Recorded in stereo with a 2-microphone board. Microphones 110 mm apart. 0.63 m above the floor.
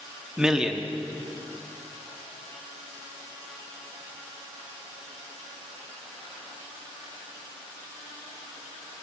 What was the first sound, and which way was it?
A man speaking, 10° right (ahead or behind).